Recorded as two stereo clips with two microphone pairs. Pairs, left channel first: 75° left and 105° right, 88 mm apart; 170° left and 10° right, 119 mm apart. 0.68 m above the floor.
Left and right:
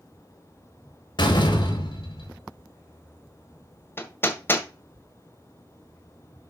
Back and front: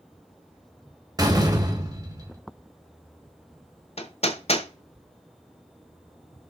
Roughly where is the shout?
I don't hear a shout.